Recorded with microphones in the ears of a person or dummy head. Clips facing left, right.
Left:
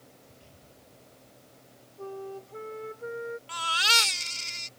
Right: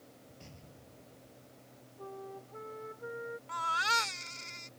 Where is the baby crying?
40° left (ahead or behind).